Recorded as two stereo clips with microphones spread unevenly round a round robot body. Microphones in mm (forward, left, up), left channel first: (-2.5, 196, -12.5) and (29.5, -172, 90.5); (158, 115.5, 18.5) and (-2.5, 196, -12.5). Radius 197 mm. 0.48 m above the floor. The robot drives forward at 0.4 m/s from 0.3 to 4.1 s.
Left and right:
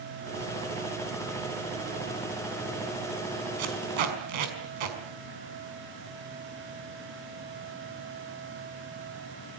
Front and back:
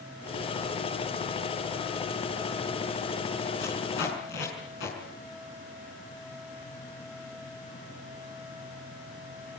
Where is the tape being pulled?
70° right, 5.5 m.